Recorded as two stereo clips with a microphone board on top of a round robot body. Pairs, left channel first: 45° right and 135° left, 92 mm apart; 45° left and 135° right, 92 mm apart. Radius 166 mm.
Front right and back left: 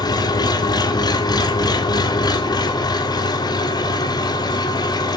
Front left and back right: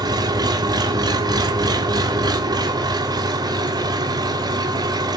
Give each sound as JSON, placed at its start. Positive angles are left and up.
{"t": 0.0, "sound": "an engine running", "azimuth_deg": -90, "distance_m": 1.8}